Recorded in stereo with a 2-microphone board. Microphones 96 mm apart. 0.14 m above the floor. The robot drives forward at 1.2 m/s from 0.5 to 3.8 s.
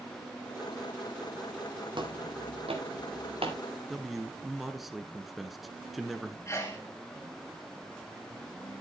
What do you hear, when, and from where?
1.9 s footsteps: 55° right (ahead or behind), 3.5 m; by 3.6 s 75° right (ahead or behind), 4 m
3.9 s a man speaking: centre (ahead or behind), 1.6 m
6.5 s a sneeze: 30° left (ahead or behind), 1.4 m